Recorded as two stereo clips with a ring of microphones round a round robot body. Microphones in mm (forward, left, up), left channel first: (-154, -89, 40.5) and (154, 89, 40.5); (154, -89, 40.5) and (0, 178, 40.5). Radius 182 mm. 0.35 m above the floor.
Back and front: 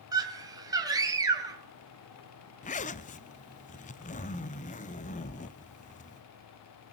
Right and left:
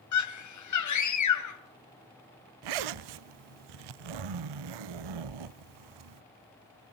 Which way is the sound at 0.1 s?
50° right.